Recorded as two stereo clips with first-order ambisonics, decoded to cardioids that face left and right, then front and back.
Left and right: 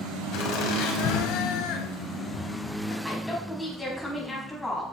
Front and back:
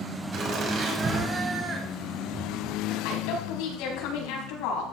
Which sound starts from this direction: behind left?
Laughter, at 0.3 s.